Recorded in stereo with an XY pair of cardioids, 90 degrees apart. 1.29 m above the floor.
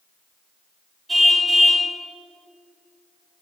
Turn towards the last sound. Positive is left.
turn(degrees=-20)